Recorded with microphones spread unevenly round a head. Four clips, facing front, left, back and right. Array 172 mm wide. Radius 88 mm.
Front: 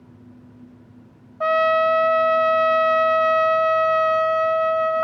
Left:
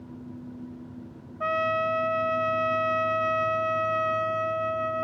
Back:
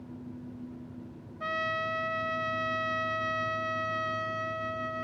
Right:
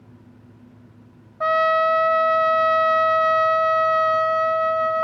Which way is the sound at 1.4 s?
25° right.